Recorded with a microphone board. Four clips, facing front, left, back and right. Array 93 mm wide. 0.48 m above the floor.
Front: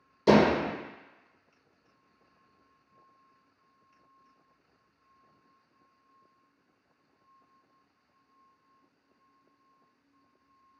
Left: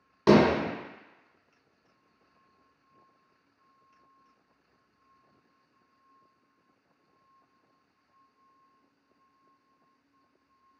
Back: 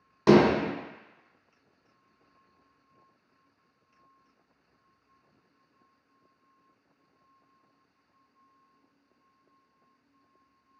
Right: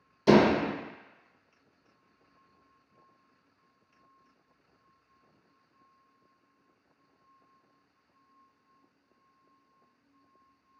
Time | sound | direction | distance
0.3 | hammering | 130° left | 1.6 m